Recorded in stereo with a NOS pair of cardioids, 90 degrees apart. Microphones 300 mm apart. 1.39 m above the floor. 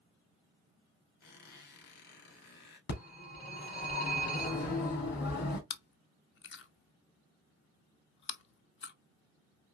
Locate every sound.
1.2 s a squeak: 55° left, 2.5 m
2.9 s a phone ringing: 55° left, 2.5 m
5.7 s chewing: 40° left, 0.7 m